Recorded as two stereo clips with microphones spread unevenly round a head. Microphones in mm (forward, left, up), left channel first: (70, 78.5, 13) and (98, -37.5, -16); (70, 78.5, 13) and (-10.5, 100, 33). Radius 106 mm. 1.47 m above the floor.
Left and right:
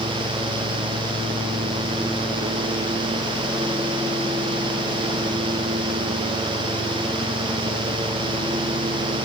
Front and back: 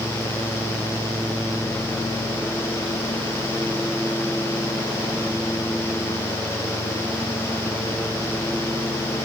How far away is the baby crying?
No baby crying in this recording.